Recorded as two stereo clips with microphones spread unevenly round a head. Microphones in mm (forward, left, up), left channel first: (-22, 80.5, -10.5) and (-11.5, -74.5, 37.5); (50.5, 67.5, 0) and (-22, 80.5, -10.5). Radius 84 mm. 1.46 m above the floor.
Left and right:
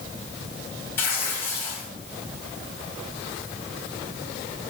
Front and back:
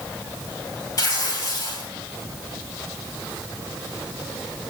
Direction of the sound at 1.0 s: 10° left.